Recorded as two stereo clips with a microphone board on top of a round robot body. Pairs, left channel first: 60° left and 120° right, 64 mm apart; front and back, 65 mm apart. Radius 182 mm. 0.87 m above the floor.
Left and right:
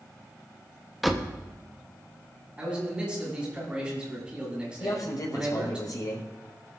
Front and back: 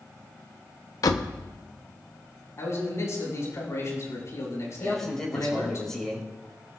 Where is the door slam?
30° right, 0.9 m.